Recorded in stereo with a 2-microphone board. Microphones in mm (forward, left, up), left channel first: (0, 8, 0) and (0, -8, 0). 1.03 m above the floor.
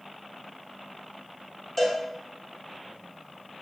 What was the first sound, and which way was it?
A cowbell, 15° left (ahead or behind).